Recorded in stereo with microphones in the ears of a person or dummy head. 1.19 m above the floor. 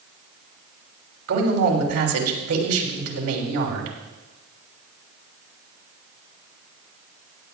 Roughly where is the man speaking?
Right.